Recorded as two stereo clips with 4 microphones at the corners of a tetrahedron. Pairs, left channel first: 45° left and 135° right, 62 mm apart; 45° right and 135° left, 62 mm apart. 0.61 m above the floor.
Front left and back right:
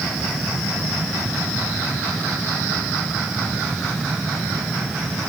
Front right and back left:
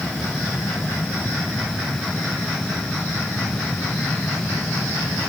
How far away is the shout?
No shout in this recording.